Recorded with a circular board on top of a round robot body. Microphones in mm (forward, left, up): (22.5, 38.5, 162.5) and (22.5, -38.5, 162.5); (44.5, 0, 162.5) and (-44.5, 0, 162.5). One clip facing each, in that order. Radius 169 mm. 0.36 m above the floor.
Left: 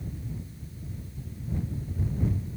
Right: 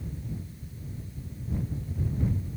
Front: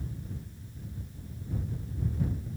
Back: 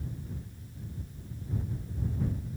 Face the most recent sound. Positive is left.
No sound to turn to.